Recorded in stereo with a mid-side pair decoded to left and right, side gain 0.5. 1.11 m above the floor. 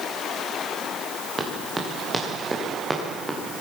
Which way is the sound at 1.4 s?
25° right.